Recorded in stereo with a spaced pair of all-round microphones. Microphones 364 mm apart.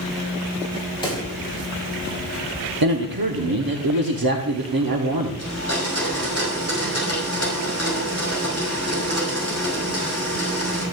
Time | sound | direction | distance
1.0 | a pop | 10° left (ahead or behind) | 3.5 m
2.8 | a man speaking | 65° right (ahead or behind) | 1.1 m
5.4 | a blender | 45° right (ahead or behind) | 5.5 m